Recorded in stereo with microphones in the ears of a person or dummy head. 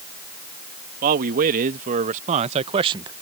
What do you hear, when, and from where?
1.0 s a man speaking: 45° right (ahead or behind); by 3.1 s 20° right (ahead or behind)